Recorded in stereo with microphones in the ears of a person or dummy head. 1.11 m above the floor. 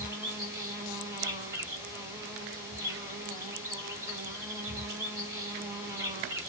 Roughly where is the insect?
Centre.